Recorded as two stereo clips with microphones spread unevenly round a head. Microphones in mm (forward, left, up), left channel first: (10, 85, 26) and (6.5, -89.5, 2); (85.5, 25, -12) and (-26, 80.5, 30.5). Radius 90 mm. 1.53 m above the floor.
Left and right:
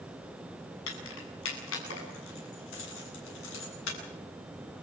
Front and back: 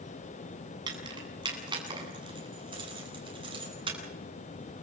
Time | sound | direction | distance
0.9 | keys jangling | 105° left | 8.5 m